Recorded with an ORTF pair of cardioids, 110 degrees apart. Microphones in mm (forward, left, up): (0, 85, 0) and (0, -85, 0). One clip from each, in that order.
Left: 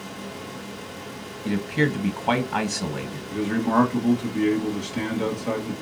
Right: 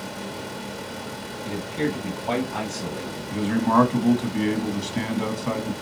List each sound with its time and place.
0.0 s a fan: 50° right, 1.2 m
1.4 s a man speaking: 45° left, 1.1 m
3.3 s a man speaking: 35° right, 1.3 m